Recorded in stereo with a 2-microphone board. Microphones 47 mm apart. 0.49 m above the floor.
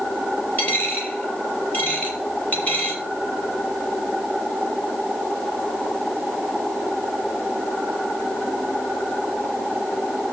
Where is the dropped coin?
40° left (ahead or behind), 6 m.